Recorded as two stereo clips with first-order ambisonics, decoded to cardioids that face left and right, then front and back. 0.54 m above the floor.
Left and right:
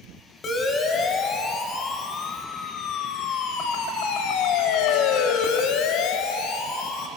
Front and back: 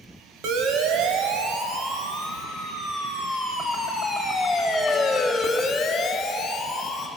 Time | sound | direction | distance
0.4 | a siren | 155° left | 2.5 m